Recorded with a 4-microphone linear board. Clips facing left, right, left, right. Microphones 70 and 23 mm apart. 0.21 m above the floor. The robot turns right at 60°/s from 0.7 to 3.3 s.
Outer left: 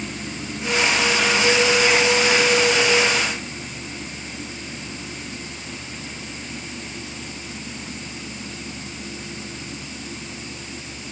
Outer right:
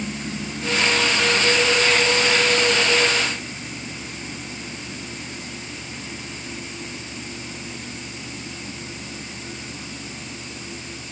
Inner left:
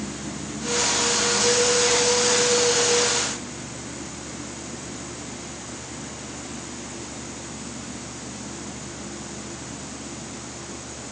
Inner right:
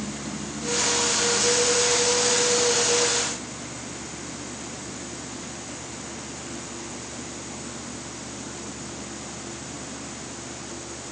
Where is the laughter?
No laughter in this recording.